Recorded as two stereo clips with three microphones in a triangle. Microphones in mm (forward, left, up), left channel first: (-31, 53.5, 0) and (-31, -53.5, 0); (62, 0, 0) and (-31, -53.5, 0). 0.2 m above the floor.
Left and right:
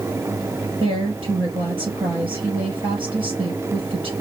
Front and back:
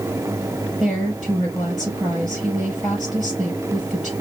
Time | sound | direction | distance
0.8 | a woman speaking | 55° right | 4 m